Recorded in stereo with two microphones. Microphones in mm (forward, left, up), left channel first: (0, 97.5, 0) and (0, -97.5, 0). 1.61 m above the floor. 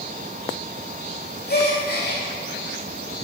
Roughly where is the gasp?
Left.